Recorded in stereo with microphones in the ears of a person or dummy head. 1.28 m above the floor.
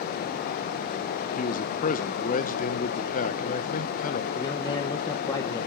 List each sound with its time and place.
1.4 s a man speaking: 45° left (ahead or behind), 1.0 m
4.3 s a man speaking: 25° left (ahead or behind), 1.0 m